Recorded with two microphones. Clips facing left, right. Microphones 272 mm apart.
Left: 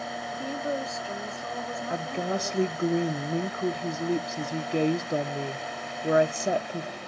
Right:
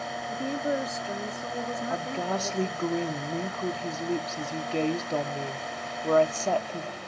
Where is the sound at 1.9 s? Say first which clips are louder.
Left 4 dB; 15° left (ahead or behind), 0.6 m.